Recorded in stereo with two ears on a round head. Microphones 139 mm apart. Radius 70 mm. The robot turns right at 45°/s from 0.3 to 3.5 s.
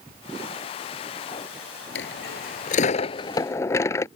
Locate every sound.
1.9 s a dropped coin: 90° left; by 4.1 s 160° left